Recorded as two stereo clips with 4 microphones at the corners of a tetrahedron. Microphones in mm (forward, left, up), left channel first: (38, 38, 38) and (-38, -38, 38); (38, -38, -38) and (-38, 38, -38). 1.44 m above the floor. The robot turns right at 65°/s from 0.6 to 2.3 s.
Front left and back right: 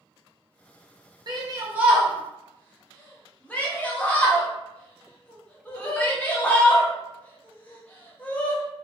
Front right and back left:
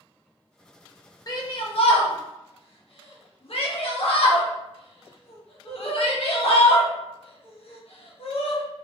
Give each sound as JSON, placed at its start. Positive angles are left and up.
{"t": 1.3, "sound": "a shout", "azimuth_deg": -100, "distance_m": 0.7}